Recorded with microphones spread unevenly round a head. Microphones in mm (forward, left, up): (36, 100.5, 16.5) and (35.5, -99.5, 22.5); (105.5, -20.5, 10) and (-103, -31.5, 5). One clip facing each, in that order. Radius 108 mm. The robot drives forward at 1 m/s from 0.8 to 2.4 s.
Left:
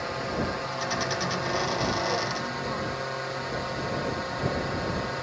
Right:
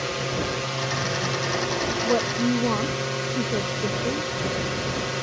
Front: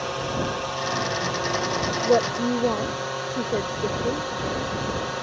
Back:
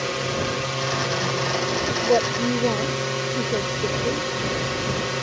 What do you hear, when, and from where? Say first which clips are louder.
0.0 s a drone: right 2 dB, back 2 dB; 130° right; by 5.2 s 135° right
2.0 s a woman speaking: right 9 dB, even; 80° right; by 4.3 s 90° right